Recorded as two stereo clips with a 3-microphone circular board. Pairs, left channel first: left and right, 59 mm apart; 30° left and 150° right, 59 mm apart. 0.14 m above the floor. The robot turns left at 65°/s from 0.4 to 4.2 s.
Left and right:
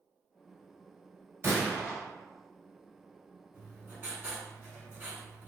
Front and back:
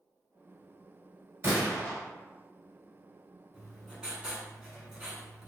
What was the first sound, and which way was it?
A gunshot, 115° right.